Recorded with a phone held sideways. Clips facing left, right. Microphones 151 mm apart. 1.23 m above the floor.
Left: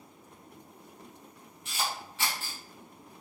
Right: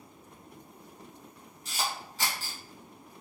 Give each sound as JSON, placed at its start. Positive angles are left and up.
{"t": 1.6, "sound": "a camera shutter", "side_deg": -35, "distance_m": 1.7}